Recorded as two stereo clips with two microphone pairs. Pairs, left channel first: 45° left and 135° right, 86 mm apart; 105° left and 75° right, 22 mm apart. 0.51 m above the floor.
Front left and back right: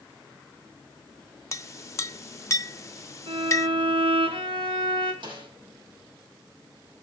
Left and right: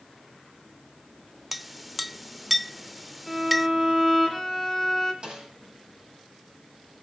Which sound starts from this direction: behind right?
A violin, at 3.3 s.